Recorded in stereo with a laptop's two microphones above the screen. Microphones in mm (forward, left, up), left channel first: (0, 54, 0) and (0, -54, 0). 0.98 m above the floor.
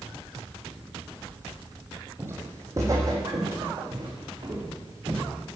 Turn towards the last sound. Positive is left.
turn(degrees=-40)  # may be behind; listen again after turning